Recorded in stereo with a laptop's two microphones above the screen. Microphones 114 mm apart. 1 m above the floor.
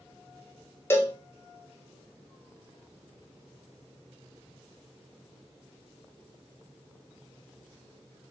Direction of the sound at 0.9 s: 20° left (ahead or behind).